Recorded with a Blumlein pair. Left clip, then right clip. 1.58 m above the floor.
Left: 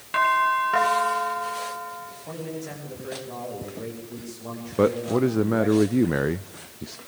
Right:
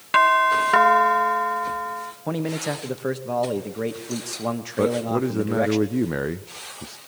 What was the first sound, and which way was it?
A doorbell, 65° right.